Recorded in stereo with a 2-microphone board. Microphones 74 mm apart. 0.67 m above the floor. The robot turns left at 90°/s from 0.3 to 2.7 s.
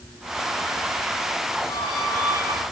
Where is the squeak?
20° left, 8 m; by 2.6 s 65° right, 8 m.